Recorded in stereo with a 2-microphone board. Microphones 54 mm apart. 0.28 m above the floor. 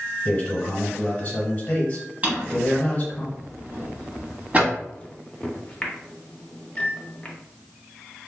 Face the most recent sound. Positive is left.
turn(degrees=20)  # may be behind; listen again after turning